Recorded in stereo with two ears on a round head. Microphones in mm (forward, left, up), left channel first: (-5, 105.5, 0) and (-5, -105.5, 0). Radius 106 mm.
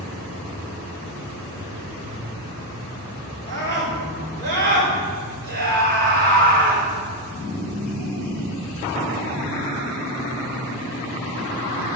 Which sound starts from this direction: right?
A scream, at 3.5 s.